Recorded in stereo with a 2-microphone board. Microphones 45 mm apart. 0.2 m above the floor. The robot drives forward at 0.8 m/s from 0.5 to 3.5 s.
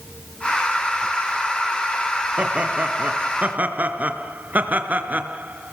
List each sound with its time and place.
2.4 s laughter: 30° right (ahead or behind), 3.5 m; by 5.7 s 40° right (ahead or behind), 3 m